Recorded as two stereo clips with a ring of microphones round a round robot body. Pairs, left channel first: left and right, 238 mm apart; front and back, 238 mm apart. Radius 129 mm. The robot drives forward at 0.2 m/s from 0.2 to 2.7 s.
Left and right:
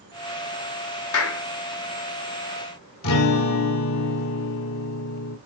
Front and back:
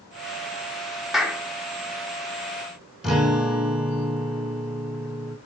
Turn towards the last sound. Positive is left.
turn(degrees=90)